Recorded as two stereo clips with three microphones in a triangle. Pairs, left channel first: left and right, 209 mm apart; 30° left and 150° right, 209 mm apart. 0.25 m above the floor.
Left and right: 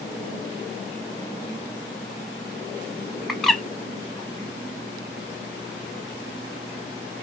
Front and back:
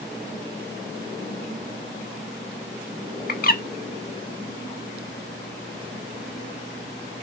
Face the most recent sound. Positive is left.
turn(degrees=0)